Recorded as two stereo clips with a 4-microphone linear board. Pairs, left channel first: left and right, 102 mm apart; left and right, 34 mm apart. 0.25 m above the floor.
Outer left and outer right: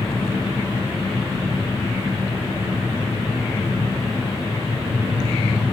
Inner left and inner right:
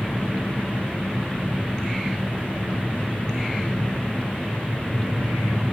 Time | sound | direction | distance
0.0 | an engine running | 60° left (ahead or behind) | 8.5 m